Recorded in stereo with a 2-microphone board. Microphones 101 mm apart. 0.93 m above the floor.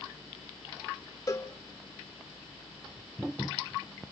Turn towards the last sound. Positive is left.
turn(degrees=35)  # may be behind; listen again after turning